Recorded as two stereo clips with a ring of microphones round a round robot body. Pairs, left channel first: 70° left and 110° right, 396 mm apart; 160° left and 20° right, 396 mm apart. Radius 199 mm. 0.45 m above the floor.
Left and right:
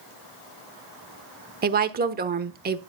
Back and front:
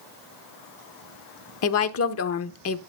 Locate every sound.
1.6 s a woman speaking: 170° right, 1.0 m